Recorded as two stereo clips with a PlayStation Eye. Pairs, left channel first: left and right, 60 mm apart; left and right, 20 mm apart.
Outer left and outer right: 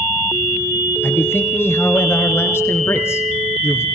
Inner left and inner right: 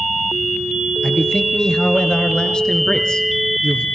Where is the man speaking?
40° left (ahead or behind), 3.5 m; by 3.9 s 50° left (ahead or behind), 2.5 m.